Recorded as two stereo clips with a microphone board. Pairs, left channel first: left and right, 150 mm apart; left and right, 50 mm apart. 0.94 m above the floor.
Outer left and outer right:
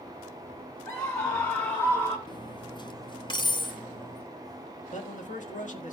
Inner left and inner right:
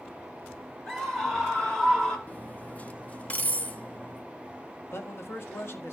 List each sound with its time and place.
0.9 s a scream: 15° left (ahead or behind), 1.3 m; by 2.2 s 25° left (ahead or behind), 2 m
2.3 s cutlery clinking: 30° left (ahead or behind), 0.9 m
4.9 s a man speaking: 55° left (ahead or behind), 1.5 m